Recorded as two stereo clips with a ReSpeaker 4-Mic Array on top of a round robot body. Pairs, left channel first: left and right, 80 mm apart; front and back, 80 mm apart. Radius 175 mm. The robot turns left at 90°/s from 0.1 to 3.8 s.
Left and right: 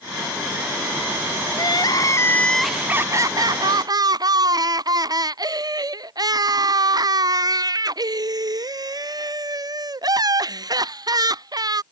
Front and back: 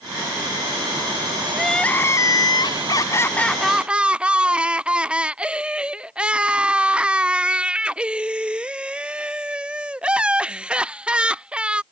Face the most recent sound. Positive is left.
turn(degrees=-105)